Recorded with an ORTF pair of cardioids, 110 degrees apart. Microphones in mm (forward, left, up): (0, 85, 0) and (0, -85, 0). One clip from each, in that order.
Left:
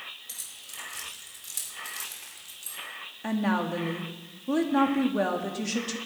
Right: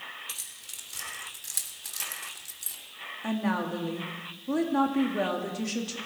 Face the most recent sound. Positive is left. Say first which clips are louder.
# left 2 dB
turn(degrees=10)